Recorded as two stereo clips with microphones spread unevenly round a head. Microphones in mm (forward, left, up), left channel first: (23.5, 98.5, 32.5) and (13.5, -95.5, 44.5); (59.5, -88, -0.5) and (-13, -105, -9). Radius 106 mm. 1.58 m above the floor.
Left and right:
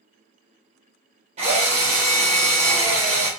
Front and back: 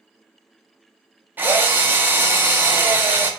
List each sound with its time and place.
1.4 s a drill: 115° right, 0.9 m